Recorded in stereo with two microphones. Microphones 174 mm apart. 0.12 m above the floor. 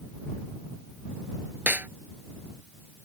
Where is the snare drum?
10° right (ahead or behind).